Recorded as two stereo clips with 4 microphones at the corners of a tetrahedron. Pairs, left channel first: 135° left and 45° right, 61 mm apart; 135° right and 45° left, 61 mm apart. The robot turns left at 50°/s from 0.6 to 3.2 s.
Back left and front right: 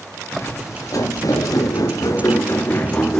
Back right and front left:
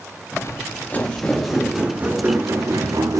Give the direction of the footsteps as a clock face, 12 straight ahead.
6 o'clock.